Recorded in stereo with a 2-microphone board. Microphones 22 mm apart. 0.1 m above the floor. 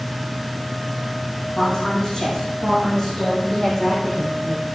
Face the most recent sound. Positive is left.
turn(degrees=5)  # may be behind; listen again after turning